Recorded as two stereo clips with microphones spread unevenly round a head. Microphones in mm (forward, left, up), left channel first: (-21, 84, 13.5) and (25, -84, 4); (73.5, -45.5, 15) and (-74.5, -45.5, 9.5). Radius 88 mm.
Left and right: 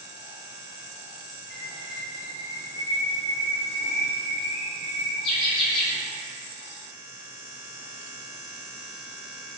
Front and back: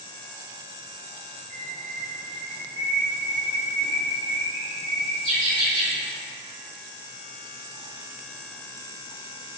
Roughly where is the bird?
Left.